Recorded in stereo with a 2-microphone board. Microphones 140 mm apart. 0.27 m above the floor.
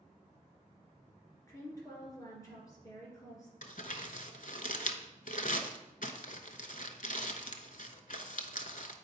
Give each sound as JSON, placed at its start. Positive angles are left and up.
{"t": 1.5, "sound": "a woman speaking", "side_deg": 25, "distance_m": 3.0}
{"t": 3.6, "sound": "crumpling", "side_deg": 70, "distance_m": 0.7}